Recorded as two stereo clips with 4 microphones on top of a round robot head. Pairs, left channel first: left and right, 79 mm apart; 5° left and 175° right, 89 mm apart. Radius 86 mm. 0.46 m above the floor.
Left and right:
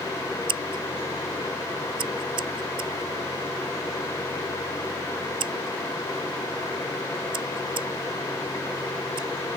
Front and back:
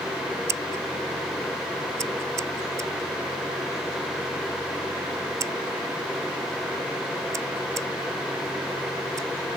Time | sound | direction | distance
0.5 | scissors | 115° right | ?